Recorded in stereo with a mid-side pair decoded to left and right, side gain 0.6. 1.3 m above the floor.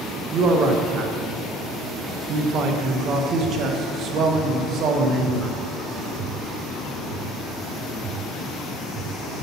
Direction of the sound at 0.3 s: 50° right.